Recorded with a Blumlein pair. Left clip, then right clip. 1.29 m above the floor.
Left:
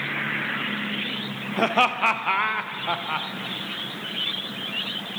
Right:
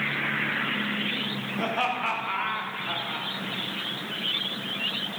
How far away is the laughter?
About 0.6 m.